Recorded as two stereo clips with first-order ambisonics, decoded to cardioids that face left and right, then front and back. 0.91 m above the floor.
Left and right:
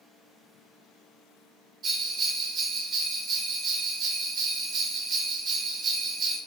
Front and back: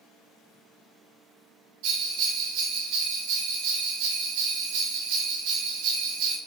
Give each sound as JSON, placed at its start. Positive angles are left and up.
{"t": 1.8, "sound": "a bell", "azimuth_deg": -155, "distance_m": 0.7}